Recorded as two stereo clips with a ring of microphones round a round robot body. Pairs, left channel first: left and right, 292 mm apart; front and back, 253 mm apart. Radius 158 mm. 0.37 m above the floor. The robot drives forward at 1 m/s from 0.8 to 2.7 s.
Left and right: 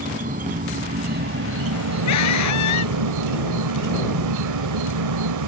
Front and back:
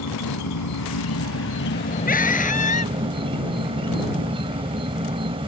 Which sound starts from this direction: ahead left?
A scream, at 2.1 s.